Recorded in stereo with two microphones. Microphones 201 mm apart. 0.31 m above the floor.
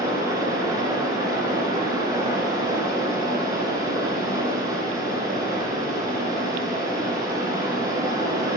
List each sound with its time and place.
0.0 s running water: 15° right (ahead or behind), 2 m